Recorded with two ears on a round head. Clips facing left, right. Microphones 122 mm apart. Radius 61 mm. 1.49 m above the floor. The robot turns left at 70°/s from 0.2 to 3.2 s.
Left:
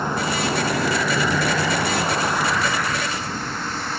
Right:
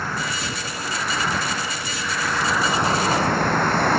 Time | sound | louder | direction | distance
0.0 | a vehicle | left 5 dB | 165° left | ?